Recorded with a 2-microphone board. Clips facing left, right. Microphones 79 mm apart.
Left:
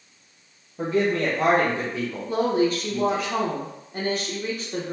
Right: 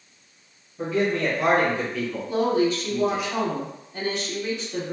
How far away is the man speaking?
About 1.3 m.